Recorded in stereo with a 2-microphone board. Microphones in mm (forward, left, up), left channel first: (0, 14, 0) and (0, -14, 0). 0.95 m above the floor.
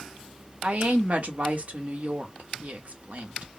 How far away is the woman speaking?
About 1.2 m.